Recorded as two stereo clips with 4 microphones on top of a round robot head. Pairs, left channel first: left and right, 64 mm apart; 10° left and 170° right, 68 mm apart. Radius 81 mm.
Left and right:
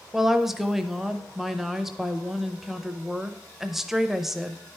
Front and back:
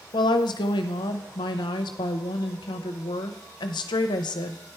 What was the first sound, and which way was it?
A woman speaking, 5° right.